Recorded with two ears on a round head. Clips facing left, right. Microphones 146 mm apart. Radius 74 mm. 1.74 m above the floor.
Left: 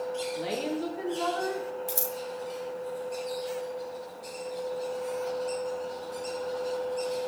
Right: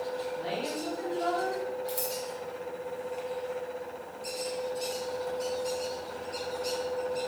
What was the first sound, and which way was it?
A woman speaking, 80° left.